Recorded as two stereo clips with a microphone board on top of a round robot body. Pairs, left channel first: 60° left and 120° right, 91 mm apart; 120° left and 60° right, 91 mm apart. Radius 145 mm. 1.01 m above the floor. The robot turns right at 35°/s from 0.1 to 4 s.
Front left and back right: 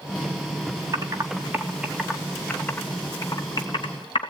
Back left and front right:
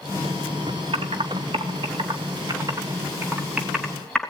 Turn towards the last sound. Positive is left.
turn(degrees=35)